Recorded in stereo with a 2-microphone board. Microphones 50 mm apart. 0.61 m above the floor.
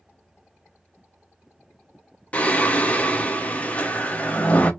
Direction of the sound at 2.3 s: 30° left (ahead or behind).